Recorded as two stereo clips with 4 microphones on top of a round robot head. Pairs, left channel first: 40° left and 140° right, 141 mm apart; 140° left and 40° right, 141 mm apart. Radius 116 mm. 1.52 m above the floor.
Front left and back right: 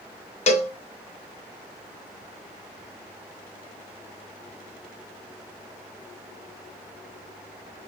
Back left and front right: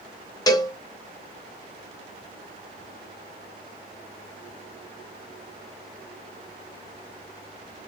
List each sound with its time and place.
0.5 s a cowbell: 80° left, 0.6 m